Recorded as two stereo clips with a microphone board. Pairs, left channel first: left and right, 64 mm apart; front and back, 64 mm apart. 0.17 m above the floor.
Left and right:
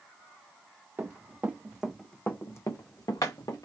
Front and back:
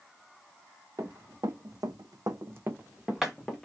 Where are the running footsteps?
150° right, 1.2 m; by 3.6 s 85° left, 1.1 m.